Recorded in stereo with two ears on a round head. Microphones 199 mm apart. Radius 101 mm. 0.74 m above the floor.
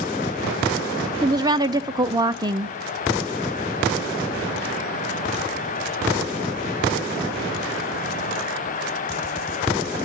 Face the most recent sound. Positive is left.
turn(degrees=-20)  # may be behind; listen again after turning